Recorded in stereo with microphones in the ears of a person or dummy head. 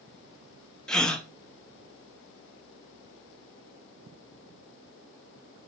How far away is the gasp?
About 0.7 m.